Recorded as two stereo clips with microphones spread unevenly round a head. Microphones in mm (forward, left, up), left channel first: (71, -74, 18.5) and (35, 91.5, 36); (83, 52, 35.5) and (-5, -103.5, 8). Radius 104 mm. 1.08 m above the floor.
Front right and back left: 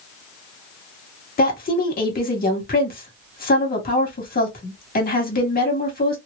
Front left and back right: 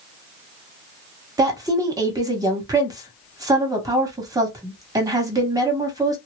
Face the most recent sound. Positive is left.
turn(degrees=-55)